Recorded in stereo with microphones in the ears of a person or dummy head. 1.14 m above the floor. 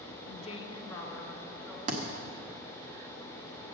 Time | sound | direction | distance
0.3 | a woman speaking | 40° left (ahead or behind) | 0.9 m
1.9 | a thud | 40° right (ahead or behind) | 1.2 m